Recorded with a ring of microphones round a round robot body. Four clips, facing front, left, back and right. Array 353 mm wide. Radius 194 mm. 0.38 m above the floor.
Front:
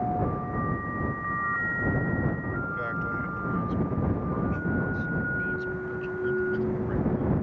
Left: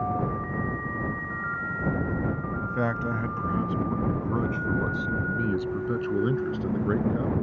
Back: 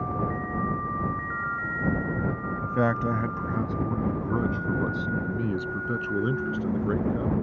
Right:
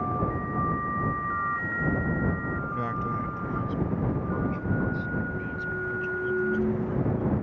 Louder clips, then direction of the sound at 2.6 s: Left 2 dB, back 6 dB; 165° left.